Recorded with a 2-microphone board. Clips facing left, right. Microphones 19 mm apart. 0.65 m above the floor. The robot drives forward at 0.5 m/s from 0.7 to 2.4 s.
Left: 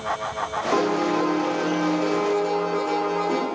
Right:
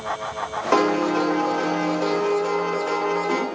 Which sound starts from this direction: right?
A piano, at 0.7 s.